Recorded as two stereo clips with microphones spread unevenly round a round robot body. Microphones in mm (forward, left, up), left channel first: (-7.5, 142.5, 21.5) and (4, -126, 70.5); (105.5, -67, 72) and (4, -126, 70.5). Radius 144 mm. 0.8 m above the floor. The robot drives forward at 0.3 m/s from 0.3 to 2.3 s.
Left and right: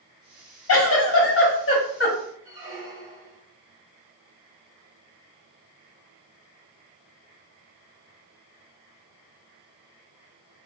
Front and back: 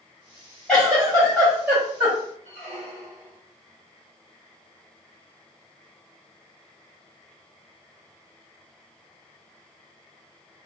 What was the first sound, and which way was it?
A giggle, 115° left.